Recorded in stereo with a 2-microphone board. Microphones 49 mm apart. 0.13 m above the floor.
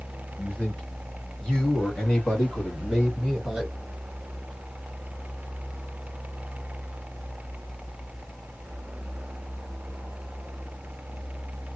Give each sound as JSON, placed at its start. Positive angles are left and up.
{"t": 0.4, "sound": "a man speaking", "side_deg": 20, "distance_m": 1.9}